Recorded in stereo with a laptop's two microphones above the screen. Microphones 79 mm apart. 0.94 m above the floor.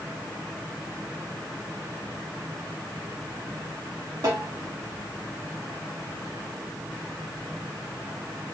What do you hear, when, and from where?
4.2 s a snare drum: 60° right (ahead or behind), 2.5 m